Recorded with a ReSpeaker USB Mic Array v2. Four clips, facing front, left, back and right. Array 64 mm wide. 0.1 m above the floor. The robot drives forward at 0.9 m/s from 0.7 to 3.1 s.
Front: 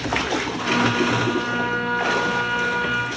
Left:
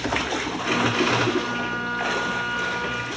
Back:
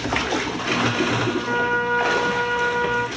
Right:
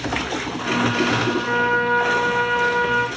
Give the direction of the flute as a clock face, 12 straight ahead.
4 o'clock.